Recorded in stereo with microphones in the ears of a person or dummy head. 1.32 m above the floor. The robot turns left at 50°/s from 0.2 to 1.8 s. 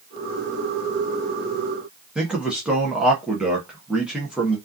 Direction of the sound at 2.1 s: 5° right (ahead or behind).